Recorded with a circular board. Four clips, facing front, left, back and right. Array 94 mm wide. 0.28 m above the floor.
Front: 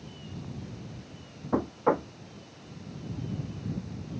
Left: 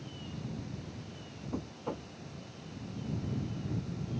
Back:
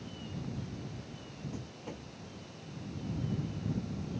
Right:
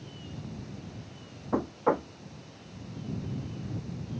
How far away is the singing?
I don't hear singing.